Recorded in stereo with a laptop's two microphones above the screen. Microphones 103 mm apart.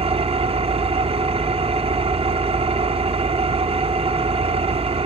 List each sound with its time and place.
0.0 s an engine running: 75° right (ahead or behind), 1.3 m